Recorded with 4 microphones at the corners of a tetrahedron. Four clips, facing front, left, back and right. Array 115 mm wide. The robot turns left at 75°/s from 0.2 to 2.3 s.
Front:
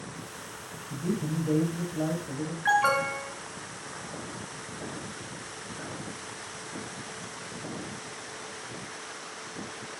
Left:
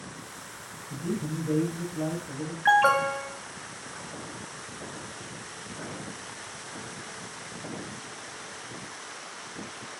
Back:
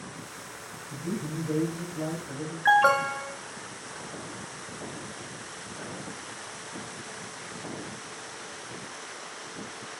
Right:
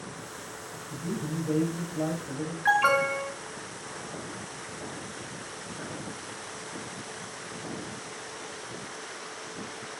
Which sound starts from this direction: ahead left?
A man speaking, at 0.9 s.